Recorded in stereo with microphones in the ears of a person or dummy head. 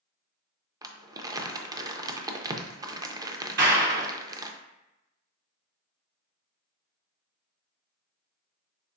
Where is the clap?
60° right (ahead or behind), 0.9 m.